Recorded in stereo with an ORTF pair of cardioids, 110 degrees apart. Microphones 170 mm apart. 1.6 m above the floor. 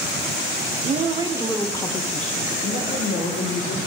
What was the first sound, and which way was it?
A woman speaking, 50° right.